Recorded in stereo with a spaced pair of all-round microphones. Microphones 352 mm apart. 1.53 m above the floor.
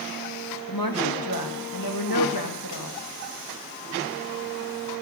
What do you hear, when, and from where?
0.7 s a woman speaking: 75° left (ahead or behind), 3 m